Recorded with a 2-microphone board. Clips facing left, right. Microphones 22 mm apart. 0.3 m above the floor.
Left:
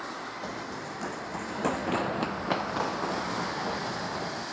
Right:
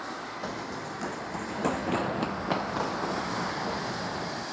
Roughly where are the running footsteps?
Centre.